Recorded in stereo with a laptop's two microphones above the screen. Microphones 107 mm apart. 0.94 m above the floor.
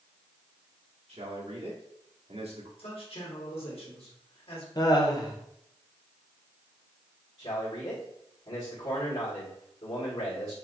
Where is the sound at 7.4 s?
60° left (ahead or behind), 2 m.